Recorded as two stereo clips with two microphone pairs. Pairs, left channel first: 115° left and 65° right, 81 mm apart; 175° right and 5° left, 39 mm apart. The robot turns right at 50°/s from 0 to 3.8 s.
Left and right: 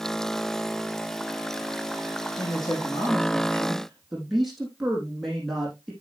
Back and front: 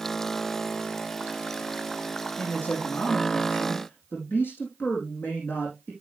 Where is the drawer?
I don't hear a drawer.